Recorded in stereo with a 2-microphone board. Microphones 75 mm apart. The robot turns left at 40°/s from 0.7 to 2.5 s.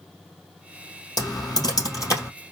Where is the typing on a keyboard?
65° left (ahead or behind), 2.5 m; by 2.3 s 35° left (ahead or behind), 2.5 m.